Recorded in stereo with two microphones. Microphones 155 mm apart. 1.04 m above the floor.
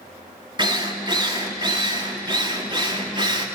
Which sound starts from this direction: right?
A drill, at 0.6 s.